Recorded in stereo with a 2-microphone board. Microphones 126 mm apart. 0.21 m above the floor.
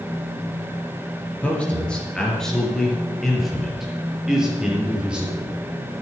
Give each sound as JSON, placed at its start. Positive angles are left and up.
{"t": 1.4, "sound": "a man speaking", "side_deg": 10, "distance_m": 4.0}